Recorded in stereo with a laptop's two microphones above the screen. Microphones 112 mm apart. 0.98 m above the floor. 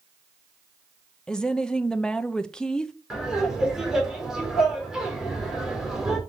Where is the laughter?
5° right (ahead or behind), 3.5 m.